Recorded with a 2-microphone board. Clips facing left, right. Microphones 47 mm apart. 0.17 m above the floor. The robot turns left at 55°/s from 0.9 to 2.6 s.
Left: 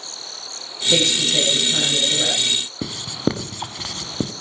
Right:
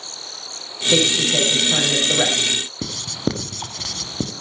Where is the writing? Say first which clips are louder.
Left 4 dB; 15° left (ahead or behind), 1.1 m.